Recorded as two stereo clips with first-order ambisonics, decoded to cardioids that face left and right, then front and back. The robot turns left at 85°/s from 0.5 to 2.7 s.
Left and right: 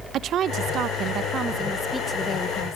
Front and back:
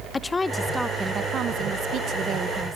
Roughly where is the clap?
No clap in this recording.